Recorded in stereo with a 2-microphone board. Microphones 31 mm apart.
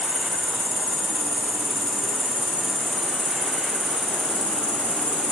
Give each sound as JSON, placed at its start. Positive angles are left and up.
{"t": 0.0, "sound": "an insect", "side_deg": -65, "distance_m": 0.8}